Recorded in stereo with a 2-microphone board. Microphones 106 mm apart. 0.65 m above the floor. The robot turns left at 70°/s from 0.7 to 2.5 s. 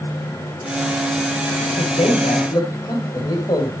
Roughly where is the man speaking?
Left.